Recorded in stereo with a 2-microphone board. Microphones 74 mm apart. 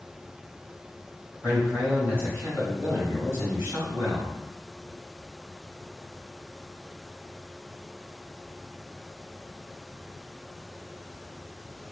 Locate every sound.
1.4 s a man speaking: 35° right (ahead or behind), 1.5 m